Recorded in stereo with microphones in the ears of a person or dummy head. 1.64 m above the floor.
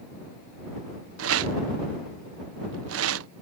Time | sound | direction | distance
1.2 | a rattle | 80° right | ?